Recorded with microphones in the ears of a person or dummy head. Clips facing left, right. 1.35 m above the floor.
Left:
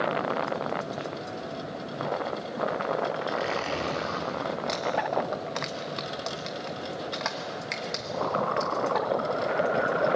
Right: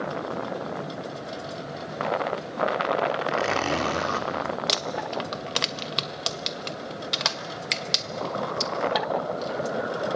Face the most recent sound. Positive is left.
turn(degrees=-45)  # may be behind; listen again after turning